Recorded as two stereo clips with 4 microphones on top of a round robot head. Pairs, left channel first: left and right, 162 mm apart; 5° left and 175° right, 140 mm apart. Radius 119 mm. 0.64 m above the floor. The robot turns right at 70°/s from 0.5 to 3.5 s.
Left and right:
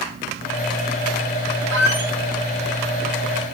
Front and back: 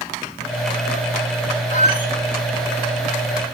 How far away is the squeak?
About 2.5 m.